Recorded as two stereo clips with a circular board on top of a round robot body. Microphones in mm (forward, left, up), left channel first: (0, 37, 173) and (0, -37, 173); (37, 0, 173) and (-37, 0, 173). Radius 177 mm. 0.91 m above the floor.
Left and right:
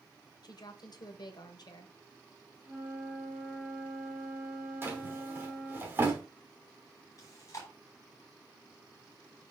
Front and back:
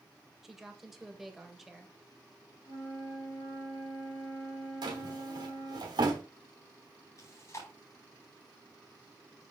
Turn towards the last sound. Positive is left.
turn(degrees=45)